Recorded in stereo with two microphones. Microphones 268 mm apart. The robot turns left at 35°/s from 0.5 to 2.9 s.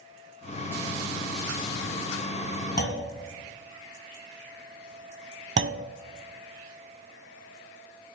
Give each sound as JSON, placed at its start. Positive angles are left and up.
{"t": 2.8, "sound": "a clunk", "side_deg": 40, "distance_m": 1.9}
{"t": 5.6, "sound": "a clunk", "side_deg": -50, "distance_m": 0.5}